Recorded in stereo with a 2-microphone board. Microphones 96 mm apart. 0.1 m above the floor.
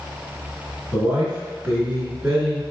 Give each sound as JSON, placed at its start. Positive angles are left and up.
{"t": 0.9, "sound": "a man speaking", "side_deg": -15, "distance_m": 1.6}